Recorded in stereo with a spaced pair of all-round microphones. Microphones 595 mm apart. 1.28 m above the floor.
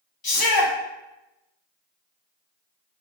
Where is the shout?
40° left (ahead or behind), 0.7 m.